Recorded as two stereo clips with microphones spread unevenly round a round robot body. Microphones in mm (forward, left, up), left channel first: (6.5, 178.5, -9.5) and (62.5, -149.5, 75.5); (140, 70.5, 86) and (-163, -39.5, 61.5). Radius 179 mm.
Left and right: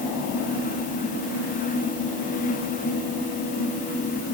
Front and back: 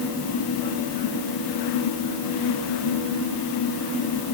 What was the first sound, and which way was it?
Only background noise.